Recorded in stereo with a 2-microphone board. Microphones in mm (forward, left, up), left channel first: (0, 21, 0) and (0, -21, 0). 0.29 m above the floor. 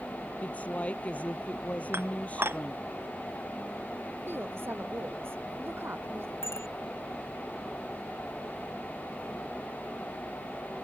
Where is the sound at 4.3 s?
55° right (ahead or behind).